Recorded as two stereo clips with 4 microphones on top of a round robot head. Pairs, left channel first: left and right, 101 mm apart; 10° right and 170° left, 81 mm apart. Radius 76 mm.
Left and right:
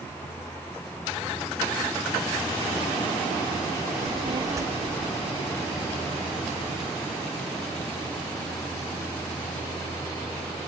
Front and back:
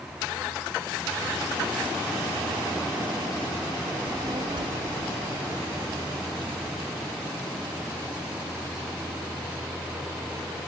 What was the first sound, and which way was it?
A child speaking, 105° right.